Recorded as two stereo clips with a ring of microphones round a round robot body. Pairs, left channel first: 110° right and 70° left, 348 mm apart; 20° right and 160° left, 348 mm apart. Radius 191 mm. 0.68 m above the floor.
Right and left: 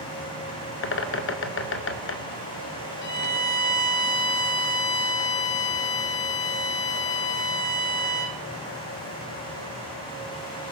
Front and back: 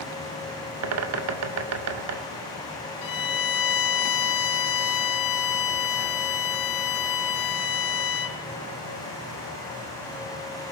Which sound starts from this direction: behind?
A bird, at 0.8 s.